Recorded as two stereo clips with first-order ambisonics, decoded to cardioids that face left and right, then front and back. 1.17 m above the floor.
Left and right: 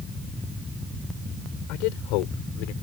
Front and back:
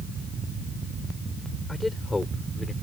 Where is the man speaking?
85° left; by 2.7 s 80° left.